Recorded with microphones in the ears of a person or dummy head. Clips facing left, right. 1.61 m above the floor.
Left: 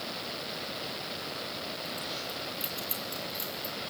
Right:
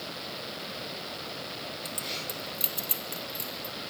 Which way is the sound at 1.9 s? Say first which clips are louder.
Even; 35° right (ahead or behind).